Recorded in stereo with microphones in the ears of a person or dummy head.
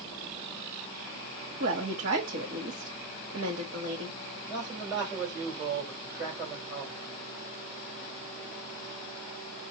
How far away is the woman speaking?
About 1.3 m.